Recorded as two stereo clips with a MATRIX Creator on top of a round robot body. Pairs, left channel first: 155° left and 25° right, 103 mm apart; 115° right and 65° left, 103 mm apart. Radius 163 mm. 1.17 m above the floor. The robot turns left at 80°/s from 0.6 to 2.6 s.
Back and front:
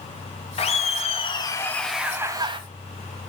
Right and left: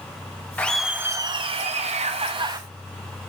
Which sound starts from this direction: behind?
Laughter, at 0.6 s.